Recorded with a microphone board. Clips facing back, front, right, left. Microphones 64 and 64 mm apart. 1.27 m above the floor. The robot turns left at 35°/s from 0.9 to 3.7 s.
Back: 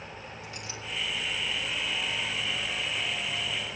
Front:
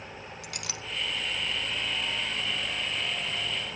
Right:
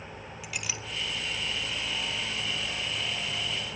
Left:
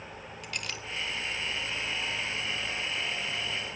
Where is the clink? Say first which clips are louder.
Front 2 dB, even; 5° right, 1.0 m.